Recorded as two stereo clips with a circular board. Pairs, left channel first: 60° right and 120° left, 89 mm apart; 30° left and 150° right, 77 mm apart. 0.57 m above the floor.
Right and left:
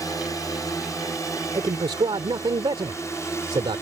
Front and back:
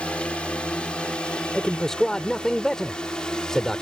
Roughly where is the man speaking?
Behind left.